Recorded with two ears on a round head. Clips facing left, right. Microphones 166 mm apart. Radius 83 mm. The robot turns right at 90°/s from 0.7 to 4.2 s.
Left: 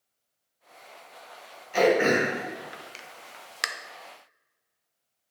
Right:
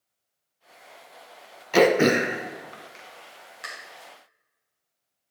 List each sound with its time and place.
1.7 s throat clearing: 70° right (ahead or behind), 0.5 m; by 3.7 s 75° left (ahead or behind), 0.5 m